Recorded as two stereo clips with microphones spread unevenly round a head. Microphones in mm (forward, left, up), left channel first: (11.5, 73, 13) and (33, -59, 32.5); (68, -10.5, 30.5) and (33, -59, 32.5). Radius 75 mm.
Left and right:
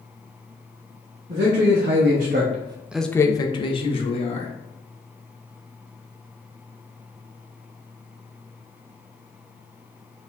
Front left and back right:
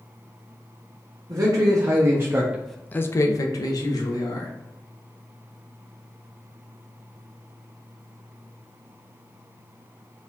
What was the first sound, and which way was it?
A man speaking, 100° right.